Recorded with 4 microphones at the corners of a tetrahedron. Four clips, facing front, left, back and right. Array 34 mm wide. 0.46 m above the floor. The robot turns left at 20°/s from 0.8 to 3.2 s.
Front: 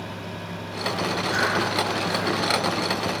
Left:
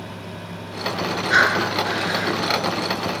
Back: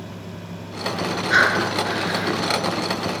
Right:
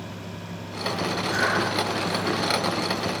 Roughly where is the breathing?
Behind left.